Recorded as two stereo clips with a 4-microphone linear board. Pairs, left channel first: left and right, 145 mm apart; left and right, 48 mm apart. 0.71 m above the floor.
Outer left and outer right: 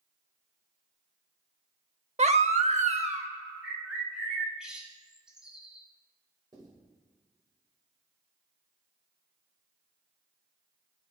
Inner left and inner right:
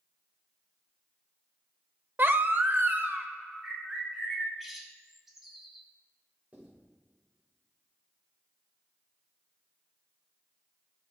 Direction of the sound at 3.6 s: 5° right (ahead or behind).